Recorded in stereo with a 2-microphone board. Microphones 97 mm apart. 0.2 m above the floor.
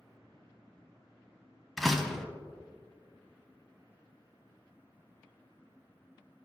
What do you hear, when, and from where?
1.8 s a door slam: centre (ahead or behind), 0.9 m